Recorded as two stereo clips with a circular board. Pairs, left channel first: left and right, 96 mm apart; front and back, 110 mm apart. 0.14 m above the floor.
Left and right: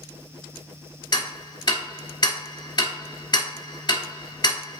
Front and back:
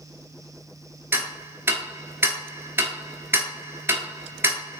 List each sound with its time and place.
1.1 s ticking: 115° left, 0.7 m